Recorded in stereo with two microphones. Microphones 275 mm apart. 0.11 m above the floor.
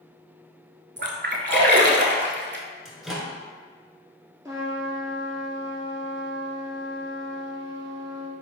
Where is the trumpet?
10° right (ahead or behind), 0.7 m.